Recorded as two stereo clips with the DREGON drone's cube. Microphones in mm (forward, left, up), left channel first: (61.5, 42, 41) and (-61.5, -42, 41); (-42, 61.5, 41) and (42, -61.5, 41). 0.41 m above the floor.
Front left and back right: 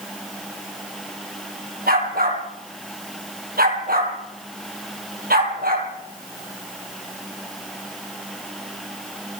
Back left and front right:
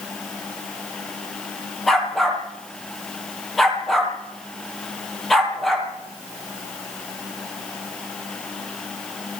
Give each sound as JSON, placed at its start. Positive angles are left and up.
{"t": 1.9, "sound": "a dog barking", "azimuth_deg": -145, "distance_m": 5.0}